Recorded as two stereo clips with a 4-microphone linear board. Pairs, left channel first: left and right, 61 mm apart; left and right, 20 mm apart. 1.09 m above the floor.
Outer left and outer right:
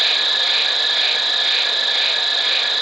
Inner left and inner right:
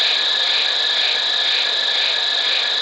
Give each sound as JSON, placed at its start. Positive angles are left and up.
{"t": 0.0, "sound": "an insect", "side_deg": 0, "distance_m": 0.7}